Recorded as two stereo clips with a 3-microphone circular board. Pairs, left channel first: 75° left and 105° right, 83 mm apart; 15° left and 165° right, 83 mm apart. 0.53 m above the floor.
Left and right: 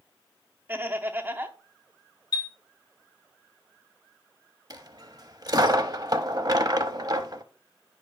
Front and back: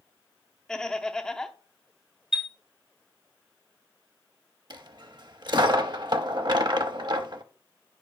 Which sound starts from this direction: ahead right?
Laughter, at 0.7 s.